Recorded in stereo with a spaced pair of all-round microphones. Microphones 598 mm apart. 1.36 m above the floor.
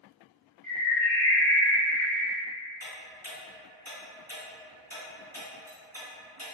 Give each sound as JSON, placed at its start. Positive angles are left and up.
{"t": 0.6, "sound": "a bird", "side_deg": -30, "distance_m": 1.0}
{"t": 2.8, "sound": "ticking", "side_deg": -25, "distance_m": 1.6}